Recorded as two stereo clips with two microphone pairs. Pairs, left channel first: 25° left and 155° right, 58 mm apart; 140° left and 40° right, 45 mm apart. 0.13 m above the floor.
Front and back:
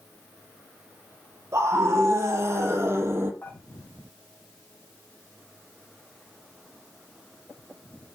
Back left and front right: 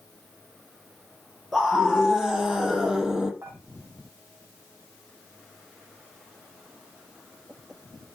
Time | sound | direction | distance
1.5 | a scream | 125° right | 5 m
3.4 | dishes clattering | 25° right | 5 m